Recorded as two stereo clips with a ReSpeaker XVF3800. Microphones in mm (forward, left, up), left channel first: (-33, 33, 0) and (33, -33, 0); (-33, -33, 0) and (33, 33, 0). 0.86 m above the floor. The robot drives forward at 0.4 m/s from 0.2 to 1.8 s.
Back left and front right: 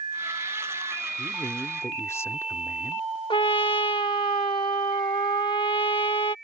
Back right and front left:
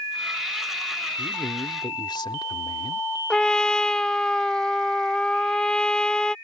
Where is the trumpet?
145° left.